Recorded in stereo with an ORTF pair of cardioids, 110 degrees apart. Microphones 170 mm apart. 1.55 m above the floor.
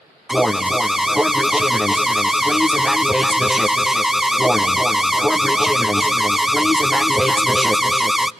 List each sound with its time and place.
0.3 s an alarm: straight ahead, 0.6 m